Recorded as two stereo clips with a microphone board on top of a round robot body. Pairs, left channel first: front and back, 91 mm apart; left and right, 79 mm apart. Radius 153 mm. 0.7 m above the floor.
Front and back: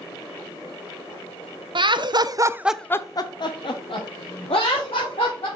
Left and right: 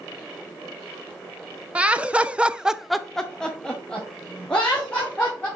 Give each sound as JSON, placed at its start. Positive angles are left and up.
{"t": 1.8, "sound": "laughter", "azimuth_deg": -165, "distance_m": 0.9}